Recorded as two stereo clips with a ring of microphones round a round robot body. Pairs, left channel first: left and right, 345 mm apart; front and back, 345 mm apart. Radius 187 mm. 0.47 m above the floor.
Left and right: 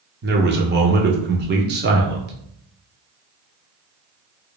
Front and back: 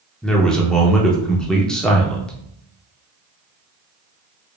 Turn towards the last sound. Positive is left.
turn(degrees=-85)